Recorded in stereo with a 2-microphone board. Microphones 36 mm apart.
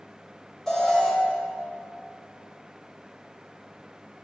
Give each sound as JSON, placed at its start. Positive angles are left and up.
{"t": 0.7, "sound": "an alarm", "side_deg": 10, "distance_m": 2.0}